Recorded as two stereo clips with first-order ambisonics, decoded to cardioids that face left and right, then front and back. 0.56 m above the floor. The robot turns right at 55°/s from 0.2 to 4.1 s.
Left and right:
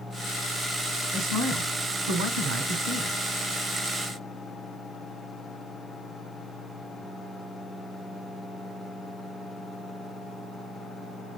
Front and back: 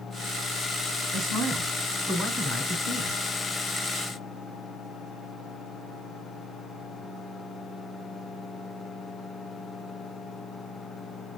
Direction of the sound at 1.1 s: 140° right.